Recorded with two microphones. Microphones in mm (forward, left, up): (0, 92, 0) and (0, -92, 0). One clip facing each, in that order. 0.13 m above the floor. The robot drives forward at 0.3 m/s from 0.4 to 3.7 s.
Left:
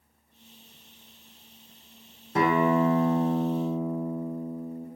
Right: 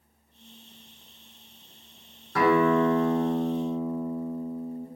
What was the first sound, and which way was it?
A guitar, 25° left (ahead or behind).